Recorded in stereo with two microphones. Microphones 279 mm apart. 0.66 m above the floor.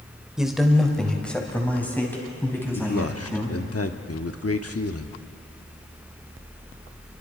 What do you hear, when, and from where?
0.4 s a man speaking: centre (ahead or behind), 2.5 m; by 3.6 s 10° left (ahead or behind), 6 m
2.8 s a man speaking: 55° left (ahead or behind), 1.1 m